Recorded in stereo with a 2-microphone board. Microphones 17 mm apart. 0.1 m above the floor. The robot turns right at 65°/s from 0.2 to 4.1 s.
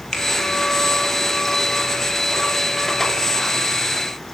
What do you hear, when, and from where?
0.1 s a finger snap: 40° left (ahead or behind), 2.5 m